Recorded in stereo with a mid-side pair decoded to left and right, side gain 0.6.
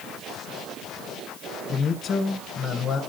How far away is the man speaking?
About 1.4 m.